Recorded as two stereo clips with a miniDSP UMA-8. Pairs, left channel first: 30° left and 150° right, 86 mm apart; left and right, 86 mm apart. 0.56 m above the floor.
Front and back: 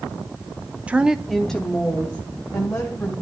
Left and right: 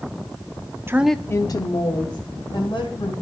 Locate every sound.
0.9 s a woman speaking: 90° right, 0.7 m; by 3.1 s 105° left, 3 m